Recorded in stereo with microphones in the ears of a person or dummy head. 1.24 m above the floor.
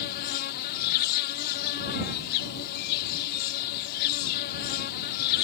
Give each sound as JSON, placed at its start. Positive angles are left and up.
{"t": 0.0, "sound": "an insect", "side_deg": 55}